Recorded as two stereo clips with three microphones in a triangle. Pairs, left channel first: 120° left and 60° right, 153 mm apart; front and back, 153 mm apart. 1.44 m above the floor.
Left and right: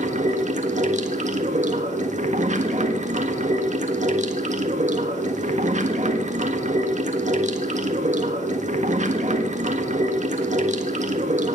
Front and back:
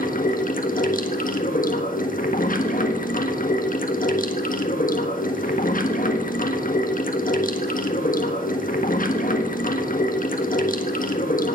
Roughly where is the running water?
Ahead right.